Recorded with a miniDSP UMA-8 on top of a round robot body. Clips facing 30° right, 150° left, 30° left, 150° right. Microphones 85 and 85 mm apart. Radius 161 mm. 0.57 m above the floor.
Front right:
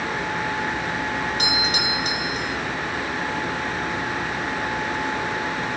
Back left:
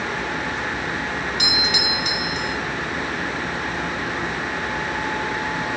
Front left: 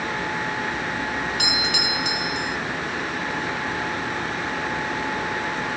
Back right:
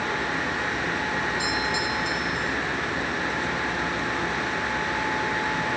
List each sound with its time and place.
1.4 s a doorbell: 20° left